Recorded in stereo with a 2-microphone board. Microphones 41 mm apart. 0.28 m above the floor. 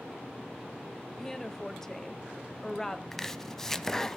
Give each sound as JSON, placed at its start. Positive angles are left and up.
{"t": 1.1, "sound": "a woman speaking", "side_deg": 15, "distance_m": 1.2}
{"t": 3.1, "sound": "chopping", "side_deg": 15, "distance_m": 0.6}